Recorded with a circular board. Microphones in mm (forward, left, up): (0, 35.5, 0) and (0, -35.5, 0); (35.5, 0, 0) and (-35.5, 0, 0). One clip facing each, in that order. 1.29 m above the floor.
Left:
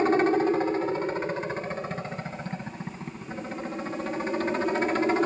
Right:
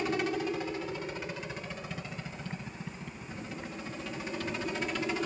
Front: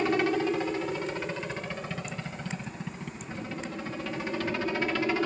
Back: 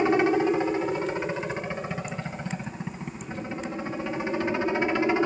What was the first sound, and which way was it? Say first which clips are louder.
A helicopter: left 10 dB, back 5 dB; 120° left.